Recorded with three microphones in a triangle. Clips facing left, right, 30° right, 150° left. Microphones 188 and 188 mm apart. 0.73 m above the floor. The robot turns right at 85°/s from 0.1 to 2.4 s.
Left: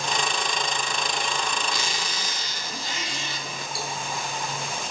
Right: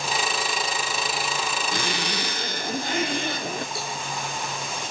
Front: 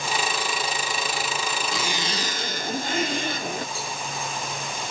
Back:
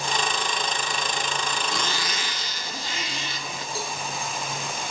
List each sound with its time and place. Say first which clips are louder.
1.7 s a zipper: right 4 dB, front 1 dB; 120° right, 1.7 m; by 3.6 s 65° right, 1.7 m
3.8 s a cowbell: even, back 1 dB; 160° right, 9.5 m